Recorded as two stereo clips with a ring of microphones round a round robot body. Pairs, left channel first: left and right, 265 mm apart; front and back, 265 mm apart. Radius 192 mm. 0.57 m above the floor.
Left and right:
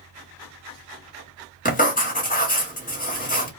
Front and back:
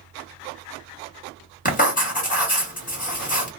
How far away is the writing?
About 1.5 m.